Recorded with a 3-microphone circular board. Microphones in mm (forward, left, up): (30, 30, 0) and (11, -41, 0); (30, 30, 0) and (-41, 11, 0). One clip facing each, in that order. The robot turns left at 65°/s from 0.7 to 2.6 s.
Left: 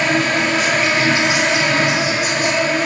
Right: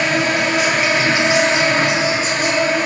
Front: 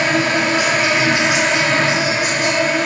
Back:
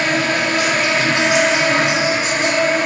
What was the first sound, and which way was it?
An insect, 30° right.